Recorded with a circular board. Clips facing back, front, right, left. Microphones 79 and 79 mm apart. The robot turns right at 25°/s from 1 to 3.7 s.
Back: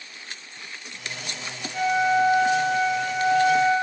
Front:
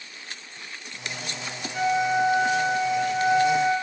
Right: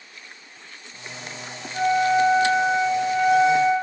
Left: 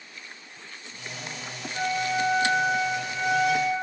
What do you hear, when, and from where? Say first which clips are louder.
1.7 s a flute: back 2 dB, right 8 dB; 95° right, 2.0 m; by 3.7 s 45° right, 2.0 m